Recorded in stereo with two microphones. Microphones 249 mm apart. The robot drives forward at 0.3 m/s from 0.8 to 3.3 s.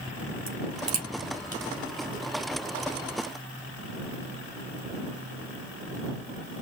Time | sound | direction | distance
0.5 | a crack | 80° right | 2.5 m